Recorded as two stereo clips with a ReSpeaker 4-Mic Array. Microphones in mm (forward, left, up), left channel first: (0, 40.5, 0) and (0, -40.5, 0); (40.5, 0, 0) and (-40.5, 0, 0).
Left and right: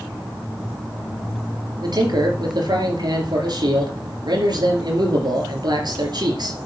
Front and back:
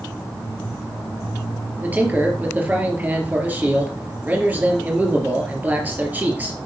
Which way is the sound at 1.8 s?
115° right.